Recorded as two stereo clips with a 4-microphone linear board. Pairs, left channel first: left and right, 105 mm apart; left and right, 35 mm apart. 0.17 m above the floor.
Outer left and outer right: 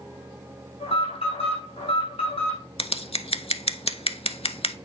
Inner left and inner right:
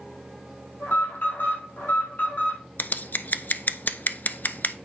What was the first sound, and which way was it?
An alarm, 60° left (ahead or behind).